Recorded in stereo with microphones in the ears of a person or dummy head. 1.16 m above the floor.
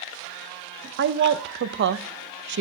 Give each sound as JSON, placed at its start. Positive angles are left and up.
{"t": 1.0, "sound": "a woman speaking", "side_deg": -55, "distance_m": 0.7}